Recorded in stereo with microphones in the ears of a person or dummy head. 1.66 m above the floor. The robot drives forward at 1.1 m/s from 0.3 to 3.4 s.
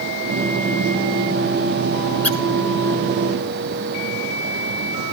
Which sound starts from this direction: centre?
A squeak, at 2.2 s.